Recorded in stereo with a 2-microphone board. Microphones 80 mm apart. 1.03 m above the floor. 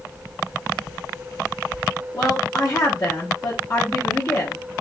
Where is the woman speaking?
40° left (ahead or behind), 1.0 m.